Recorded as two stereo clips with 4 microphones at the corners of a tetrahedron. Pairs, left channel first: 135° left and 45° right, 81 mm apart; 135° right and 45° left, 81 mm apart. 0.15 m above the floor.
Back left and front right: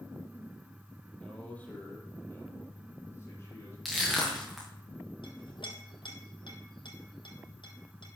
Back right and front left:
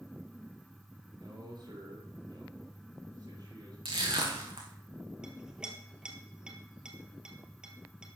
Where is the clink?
125° left, 2 m.